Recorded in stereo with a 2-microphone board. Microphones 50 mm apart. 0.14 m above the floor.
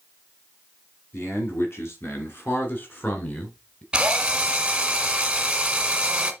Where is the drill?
20° right (ahead or behind), 1.1 m.